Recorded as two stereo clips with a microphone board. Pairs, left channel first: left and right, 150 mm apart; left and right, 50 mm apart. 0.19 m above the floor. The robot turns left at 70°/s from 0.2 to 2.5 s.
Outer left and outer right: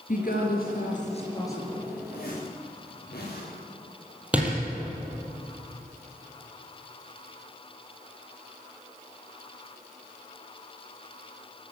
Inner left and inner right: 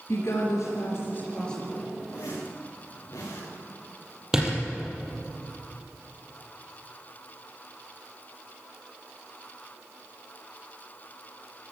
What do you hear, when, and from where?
0.1 s a woman speaking: 60° left (ahead or behind), 3 m; by 1.9 s 10° right (ahead or behind), 3 m
2.1 s a zipper: 75° left (ahead or behind), 8 m
4.3 s a door slam: 10° right (ahead or behind), 5 m